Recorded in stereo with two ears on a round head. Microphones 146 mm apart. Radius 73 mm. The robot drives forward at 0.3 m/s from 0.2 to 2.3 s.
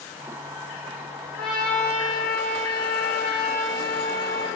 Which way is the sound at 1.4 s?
5° left (ahead or behind).